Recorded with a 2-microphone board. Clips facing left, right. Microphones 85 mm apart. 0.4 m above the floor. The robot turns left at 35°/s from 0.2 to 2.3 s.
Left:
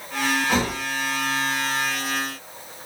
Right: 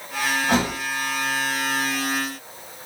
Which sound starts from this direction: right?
A thud, at 0.5 s.